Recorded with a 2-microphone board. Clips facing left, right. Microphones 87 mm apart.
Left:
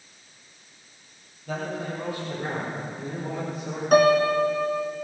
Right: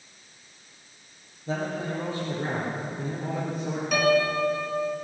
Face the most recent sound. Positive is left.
turn(degrees=40)  # may be behind; listen again after turning